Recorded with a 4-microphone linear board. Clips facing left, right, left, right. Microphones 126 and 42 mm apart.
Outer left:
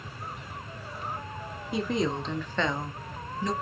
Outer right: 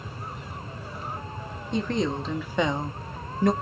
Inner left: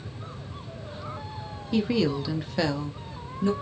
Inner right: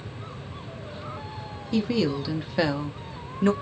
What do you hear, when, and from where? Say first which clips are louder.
1.7 s a woman speaking: outer right 2 dB, even; 10° left (ahead or behind), 1.4 m; by 3.5 s 60° right (ahead or behind), 0.7 m